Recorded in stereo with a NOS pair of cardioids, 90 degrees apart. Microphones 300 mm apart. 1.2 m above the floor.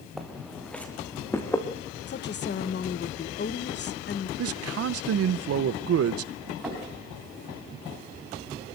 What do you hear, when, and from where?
0.2 s footsteps: straight ahead, 4.5 m; by 1.6 s 10° left, 4 m
2.1 s a woman speaking: 40° left, 1.4 m
4.4 s a man speaking: 55° right, 0.9 m
6.6 s knocking: 5° right, 8.5 m